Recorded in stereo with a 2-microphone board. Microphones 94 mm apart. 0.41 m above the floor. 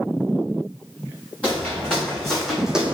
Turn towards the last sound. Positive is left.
turn(degrees=-15)  # may be behind; listen again after turning